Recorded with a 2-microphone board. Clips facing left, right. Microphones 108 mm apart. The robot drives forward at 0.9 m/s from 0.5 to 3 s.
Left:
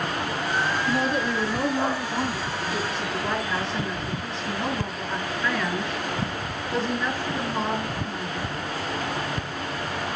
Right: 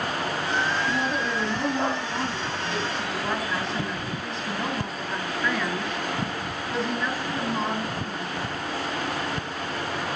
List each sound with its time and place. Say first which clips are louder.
0.9 s a woman speaking: left 2 dB; centre (ahead or behind), 8.5 m